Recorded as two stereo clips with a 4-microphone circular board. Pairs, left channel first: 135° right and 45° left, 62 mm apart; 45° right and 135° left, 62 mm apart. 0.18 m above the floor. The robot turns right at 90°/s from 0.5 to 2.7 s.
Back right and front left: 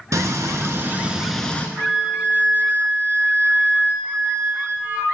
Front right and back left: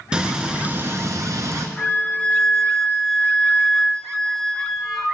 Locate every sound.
0.1 s frying: 60° left, 0.8 m; by 1.7 s 165° left, 0.8 m
1.8 s a flute: 50° right, 0.8 m; by 5.2 s 35° left, 0.8 m